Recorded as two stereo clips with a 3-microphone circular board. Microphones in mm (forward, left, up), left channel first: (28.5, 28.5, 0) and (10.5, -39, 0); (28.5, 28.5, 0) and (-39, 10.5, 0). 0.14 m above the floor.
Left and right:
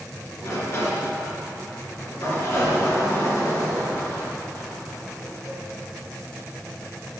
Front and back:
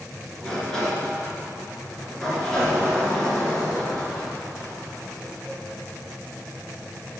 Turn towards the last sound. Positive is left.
turn(degrees=90)